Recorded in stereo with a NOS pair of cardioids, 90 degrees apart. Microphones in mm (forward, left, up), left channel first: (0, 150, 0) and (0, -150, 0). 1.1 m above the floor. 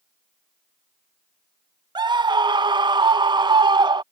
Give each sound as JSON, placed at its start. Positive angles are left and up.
{"t": 1.9, "sound": "a scream", "azimuth_deg": -15}